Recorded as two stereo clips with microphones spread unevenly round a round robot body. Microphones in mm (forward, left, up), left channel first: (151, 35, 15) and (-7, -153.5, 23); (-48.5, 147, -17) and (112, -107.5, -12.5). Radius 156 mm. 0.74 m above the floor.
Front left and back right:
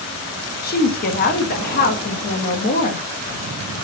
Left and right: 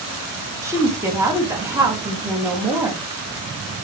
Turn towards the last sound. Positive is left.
turn(degrees=20)